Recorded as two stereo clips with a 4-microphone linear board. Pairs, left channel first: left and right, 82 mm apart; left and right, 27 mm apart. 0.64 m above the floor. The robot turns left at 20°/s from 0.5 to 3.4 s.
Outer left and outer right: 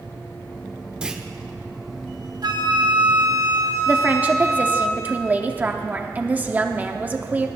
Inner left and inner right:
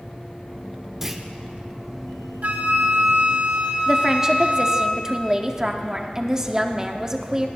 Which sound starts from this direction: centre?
A clunk, at 1.0 s.